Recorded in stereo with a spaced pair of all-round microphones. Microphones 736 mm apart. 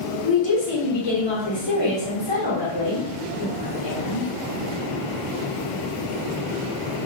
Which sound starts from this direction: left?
A woman speaking, at 0.2 s.